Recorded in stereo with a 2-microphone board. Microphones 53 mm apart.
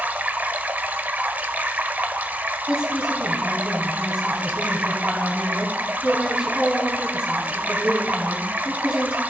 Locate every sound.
0.0 s running water: 35° right (ahead or behind), 0.8 m
2.7 s a woman speaking: 15° right (ahead or behind), 3.5 m